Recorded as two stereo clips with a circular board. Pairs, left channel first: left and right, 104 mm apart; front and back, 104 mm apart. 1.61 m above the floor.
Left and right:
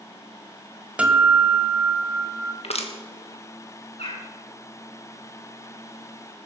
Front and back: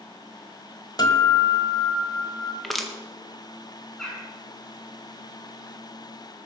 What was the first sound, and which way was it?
A guitar, 15° right.